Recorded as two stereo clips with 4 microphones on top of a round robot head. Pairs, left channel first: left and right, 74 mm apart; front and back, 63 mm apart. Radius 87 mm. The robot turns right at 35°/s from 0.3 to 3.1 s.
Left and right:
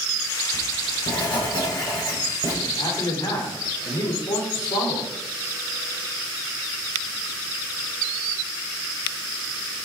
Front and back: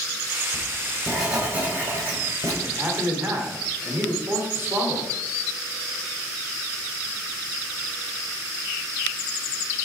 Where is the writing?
70° left, 5.5 m; by 2.5 s 145° left, 5.5 m.